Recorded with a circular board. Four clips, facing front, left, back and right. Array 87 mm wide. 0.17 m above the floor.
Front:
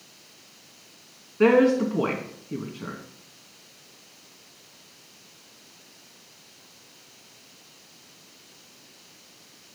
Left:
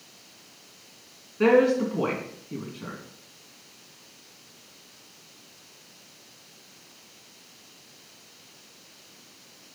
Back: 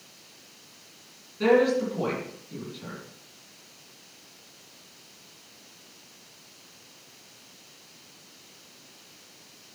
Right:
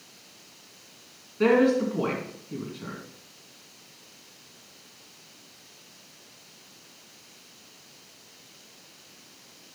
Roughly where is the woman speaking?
Ahead.